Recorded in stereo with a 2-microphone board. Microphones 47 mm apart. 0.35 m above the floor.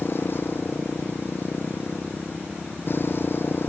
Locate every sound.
0.0 s a motorcycle: 50° left (ahead or behind)